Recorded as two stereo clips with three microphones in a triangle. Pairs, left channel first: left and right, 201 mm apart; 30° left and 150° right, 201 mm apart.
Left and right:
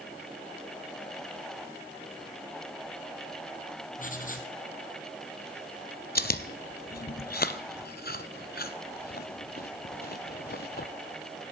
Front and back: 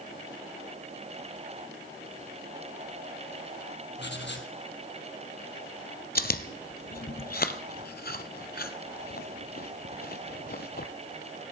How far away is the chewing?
About 0.6 m.